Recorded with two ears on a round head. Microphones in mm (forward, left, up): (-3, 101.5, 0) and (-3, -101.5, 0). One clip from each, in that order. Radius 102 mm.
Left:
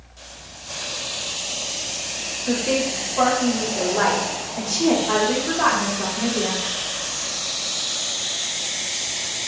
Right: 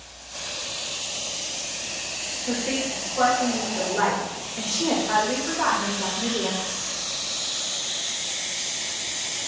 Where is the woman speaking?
5° left (ahead or behind), 1.1 m.